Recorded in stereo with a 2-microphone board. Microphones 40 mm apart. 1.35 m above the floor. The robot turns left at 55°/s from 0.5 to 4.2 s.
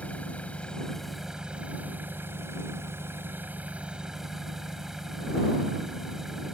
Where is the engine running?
30° left; by 6.5 s 170° right.